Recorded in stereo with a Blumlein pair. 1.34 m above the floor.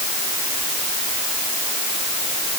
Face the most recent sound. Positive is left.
No sound to turn to.